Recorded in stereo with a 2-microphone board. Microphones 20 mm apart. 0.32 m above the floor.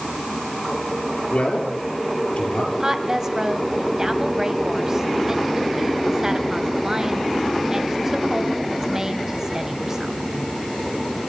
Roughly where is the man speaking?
Left.